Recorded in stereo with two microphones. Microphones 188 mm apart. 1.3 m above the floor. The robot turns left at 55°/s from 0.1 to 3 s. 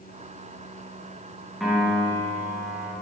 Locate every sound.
1.6 s a piano: straight ahead, 1.5 m; by 2.9 s 70° right, 1.5 m